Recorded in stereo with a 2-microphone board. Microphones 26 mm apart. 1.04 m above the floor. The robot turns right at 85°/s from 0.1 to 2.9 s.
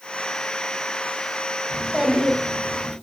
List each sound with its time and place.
1.7 s a child speaking: 5° left (ahead or behind), 1.0 m; by 2.9 s 80° right, 1.0 m